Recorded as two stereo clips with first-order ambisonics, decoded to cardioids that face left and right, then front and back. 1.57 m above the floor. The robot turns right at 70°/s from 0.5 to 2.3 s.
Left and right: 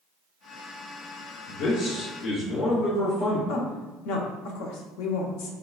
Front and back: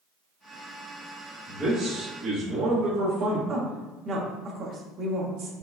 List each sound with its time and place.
1.5 s a man speaking: 65° left, 1.7 m; by 3.4 s 125° left, 1.7 m
3.5 s a woman speaking: 110° left, 0.9 m